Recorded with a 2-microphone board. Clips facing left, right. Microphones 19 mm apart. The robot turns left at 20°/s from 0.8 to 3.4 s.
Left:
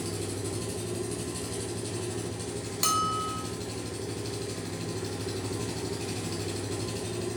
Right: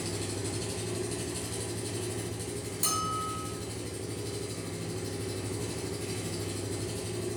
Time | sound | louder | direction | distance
0.0 | an engine running | left 1 dB | 170° right | 1.5 m
2.8 | a bell | left 5 dB | 40° left (ahead or behind) | 0.7 m